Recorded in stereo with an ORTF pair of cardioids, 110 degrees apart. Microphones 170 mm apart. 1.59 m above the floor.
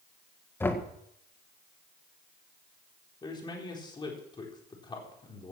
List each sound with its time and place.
0.6 s knocking: 15° left, 1.6 m
3.2 s a man speaking: 25° left, 4 m